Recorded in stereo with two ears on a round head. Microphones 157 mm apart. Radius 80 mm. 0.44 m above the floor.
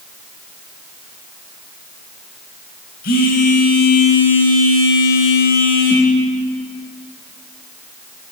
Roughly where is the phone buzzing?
Left.